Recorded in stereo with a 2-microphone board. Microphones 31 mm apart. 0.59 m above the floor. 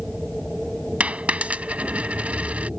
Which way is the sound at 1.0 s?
55° right (ahead or behind).